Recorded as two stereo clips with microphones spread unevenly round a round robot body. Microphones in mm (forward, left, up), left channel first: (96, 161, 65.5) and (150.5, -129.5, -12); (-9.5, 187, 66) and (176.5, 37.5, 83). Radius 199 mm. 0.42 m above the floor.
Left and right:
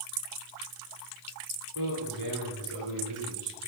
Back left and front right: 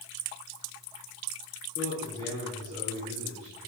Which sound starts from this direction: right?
A man speaking, at 1.8 s.